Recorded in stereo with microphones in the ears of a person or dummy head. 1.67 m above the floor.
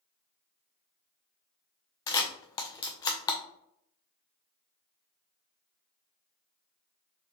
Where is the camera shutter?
20° left (ahead or behind), 0.5 m.